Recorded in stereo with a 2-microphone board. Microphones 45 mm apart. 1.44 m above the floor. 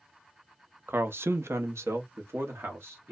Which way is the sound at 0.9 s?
50° right (ahead or behind).